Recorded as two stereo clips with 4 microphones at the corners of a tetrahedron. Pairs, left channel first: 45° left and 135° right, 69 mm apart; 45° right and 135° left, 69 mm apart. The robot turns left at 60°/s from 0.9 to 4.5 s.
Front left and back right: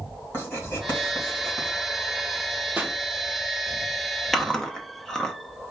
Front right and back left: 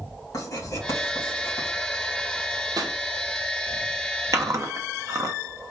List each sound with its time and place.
0.3 s writing: 10° right, 3 m; by 1.7 s 60° right, 3 m
2.8 s a pop: 165° left, 0.9 m; by 3.0 s 155° left, 0.9 m
4.3 s chewing: 135° left, 0.9 m; by 5.3 s 125° left, 0.9 m